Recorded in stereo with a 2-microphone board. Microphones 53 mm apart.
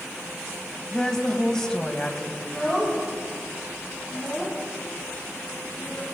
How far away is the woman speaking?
About 1.4 m.